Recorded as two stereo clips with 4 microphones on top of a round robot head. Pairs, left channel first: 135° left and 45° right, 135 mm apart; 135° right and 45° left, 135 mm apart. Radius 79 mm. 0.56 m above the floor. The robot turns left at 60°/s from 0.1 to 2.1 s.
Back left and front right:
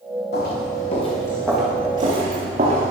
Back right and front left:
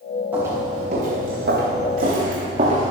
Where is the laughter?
No laughter in this recording.